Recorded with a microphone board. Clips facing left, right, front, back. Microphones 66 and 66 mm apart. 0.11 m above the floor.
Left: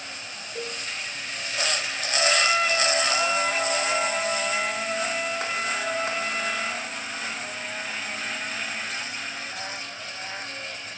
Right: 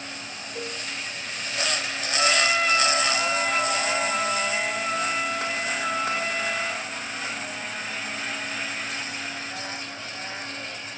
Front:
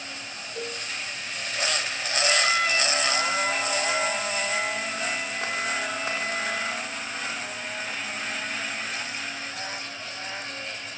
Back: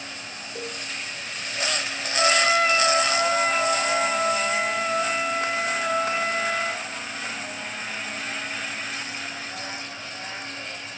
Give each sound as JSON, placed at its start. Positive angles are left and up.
{"t": 0.6, "sound": "a cowbell", "azimuth_deg": 180, "distance_m": 2.5}
{"t": 2.2, "sound": "a trumpet", "azimuth_deg": 170, "distance_m": 3.0}